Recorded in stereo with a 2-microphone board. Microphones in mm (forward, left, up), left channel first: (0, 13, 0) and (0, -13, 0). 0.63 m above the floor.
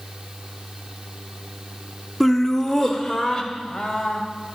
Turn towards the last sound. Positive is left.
turn(degrees=25)  # may be behind; listen again after turning